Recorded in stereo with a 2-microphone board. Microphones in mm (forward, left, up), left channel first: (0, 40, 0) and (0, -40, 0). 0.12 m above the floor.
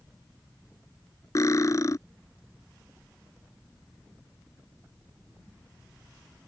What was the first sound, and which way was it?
Cutlery clinking, 45° left (ahead or behind).